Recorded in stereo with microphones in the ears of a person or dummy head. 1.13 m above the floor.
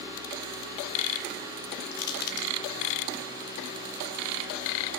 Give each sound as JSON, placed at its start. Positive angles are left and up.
{"t": 1.9, "sound": "crushing", "side_deg": 55, "distance_m": 2.5}